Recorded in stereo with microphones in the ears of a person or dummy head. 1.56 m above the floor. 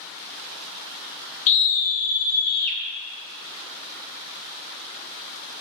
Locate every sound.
1.5 s a scream: 40° left (ahead or behind), 1.2 m; by 2.8 s 50° left (ahead or behind), 2 m